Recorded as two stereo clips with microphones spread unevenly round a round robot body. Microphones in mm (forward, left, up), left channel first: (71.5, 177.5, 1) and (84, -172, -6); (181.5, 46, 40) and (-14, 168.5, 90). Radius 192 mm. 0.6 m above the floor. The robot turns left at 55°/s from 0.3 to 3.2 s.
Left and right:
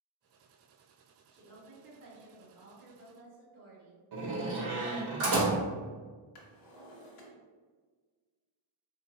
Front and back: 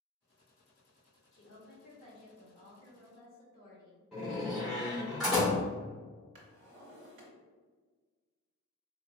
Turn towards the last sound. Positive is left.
turn(degrees=125)